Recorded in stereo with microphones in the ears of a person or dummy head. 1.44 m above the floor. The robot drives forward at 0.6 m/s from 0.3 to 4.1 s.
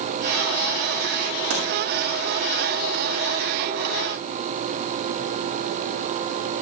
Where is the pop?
75° right (ahead or behind), 6.5 m.